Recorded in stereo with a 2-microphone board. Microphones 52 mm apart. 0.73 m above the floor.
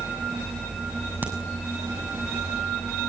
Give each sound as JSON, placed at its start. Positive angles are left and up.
{"t": 1.2, "sound": "a crack", "side_deg": -35, "distance_m": 6.5}